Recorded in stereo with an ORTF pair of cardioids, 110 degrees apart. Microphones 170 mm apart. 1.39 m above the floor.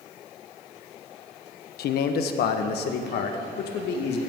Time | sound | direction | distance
1.8 | a man speaking | 70° left | 1.2 m